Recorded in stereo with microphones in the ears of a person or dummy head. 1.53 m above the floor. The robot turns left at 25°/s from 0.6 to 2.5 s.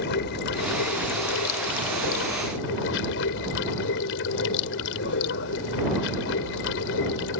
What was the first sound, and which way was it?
Running water, 120° left.